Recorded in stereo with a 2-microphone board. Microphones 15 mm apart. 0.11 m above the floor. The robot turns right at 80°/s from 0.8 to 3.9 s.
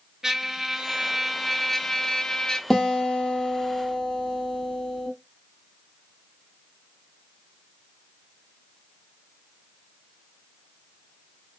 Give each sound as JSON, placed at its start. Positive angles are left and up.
{"t": 0.2, "sound": "a trumpet", "azimuth_deg": -55, "distance_m": 0.5}
{"t": 2.7, "sound": "a guitar", "azimuth_deg": 35, "distance_m": 1.3}